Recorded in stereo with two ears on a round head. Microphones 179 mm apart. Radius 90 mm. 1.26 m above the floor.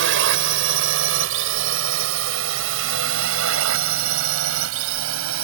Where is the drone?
70° right (ahead or behind); by 5.5 s 85° right.